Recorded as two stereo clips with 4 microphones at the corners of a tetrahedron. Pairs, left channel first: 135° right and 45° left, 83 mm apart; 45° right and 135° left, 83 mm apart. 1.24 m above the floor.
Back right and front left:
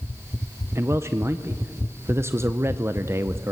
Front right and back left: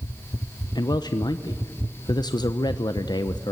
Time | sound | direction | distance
0.8 | a man speaking | 15° right | 0.6 m